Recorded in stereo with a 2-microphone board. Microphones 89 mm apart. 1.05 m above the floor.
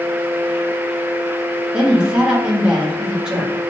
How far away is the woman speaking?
About 1.5 m.